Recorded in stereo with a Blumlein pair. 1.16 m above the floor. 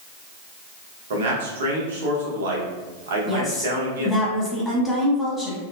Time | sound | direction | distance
1.1 | a man speaking | 55° right | 0.9 m
3.3 | a woman speaking | straight ahead | 1.4 m